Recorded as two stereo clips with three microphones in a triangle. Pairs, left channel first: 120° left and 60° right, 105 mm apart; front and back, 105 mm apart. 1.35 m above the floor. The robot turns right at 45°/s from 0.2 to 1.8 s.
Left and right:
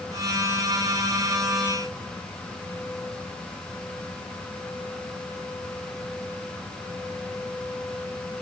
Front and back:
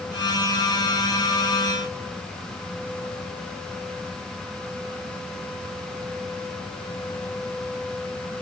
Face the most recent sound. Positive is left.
No sound to turn to.